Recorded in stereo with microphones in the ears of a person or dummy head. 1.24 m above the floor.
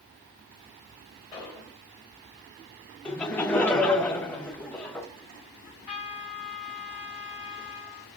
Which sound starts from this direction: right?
A trumpet, at 5.7 s.